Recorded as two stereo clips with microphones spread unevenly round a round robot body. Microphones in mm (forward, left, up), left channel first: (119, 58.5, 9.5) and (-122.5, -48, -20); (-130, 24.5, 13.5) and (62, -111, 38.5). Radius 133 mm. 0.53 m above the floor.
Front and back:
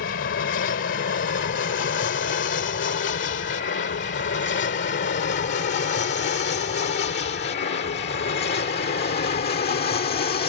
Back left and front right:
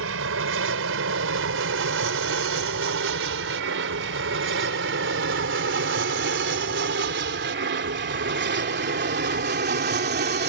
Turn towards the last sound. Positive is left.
turn(degrees=-15)